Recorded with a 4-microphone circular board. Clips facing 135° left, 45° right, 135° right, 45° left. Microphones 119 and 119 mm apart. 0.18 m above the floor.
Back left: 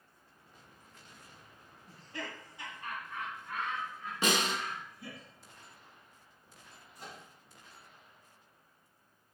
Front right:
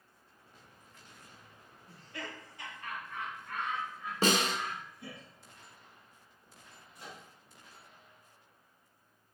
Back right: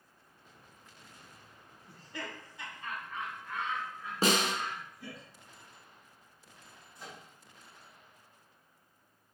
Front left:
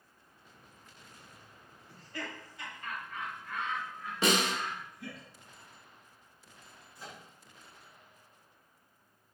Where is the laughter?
160° left, 1.8 m; by 5.2 s 95° right, 1.8 m.